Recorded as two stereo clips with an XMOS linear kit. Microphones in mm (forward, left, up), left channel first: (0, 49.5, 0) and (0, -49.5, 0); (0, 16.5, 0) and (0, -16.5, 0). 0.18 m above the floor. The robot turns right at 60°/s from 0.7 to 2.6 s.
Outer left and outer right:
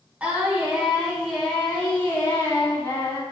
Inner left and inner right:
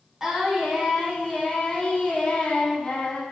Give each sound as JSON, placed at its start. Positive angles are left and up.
{"t": 0.2, "sound": "singing", "side_deg": -15, "distance_m": 0.9}